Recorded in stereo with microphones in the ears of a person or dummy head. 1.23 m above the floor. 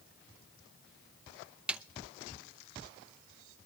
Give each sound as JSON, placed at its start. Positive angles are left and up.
{"t": 1.7, "sound": "a snare drum", "side_deg": -10, "distance_m": 0.5}